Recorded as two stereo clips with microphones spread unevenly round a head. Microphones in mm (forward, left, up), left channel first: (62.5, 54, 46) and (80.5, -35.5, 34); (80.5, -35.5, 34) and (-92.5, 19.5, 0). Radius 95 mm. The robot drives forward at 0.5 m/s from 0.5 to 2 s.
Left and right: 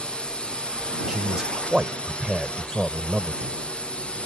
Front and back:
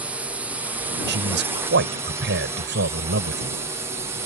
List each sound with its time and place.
0.0 s a drone: 175° right
1.1 s a man speaking: 165° right